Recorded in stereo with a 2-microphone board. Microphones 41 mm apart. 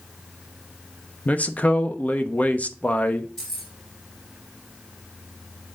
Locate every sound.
1.2 s a man speaking: 40° left (ahead or behind), 0.9 m
3.4 s keys jangling: 10° left (ahead or behind), 4.5 m